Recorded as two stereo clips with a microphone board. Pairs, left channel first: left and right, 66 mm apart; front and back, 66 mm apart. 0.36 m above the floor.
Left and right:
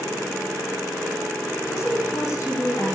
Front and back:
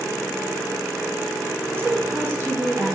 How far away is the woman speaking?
About 2 m.